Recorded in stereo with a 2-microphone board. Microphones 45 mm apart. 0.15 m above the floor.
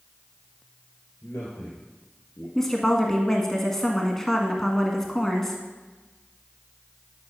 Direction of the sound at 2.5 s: 10° left (ahead or behind).